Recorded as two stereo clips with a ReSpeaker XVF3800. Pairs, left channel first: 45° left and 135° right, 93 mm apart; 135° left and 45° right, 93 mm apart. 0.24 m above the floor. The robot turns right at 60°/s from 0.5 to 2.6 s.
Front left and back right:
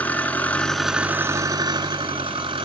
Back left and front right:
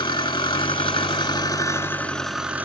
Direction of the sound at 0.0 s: 115° left.